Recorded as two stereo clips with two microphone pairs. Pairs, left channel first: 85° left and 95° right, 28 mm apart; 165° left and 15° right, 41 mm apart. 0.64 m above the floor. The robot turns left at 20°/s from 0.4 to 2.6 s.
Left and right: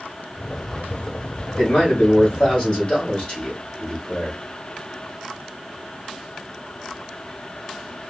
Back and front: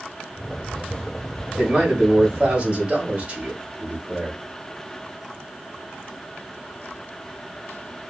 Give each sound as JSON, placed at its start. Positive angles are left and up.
{"t": 1.6, "sound": "a man speaking", "azimuth_deg": 60, "distance_m": 2.5}